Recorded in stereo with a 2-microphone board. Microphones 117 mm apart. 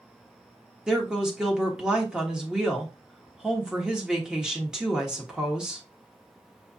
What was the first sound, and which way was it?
A woman speaking, 5° right (ahead or behind).